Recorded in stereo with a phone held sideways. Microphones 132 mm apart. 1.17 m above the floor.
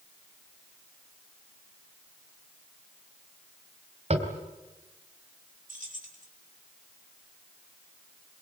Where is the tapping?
55° right (ahead or behind), 3.5 m.